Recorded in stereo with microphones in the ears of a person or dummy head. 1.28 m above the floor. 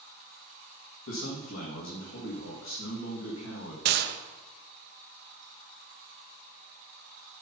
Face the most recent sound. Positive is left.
turn(degrees=-55)  # may be behind; listen again after turning